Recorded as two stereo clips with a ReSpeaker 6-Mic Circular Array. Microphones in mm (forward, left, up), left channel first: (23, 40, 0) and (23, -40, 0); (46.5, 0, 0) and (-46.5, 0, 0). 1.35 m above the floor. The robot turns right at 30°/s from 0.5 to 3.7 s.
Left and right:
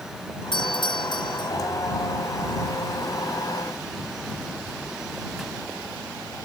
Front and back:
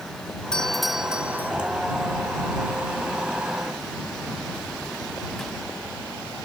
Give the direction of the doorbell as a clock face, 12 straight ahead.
9 o'clock.